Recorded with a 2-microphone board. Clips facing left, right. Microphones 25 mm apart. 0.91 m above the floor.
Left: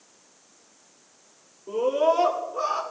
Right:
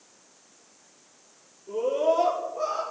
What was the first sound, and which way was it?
A scream, 50° left (ahead or behind).